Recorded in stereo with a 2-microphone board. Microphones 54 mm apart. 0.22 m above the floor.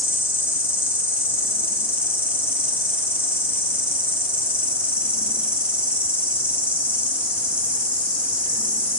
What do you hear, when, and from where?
0.0 s an insect: 20° right (ahead or behind), 0.8 m